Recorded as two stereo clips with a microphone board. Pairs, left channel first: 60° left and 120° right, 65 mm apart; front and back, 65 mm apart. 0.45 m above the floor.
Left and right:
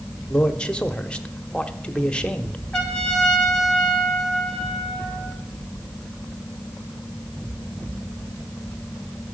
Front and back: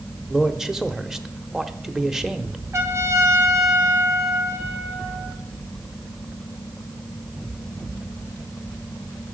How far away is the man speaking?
About 0.9 m.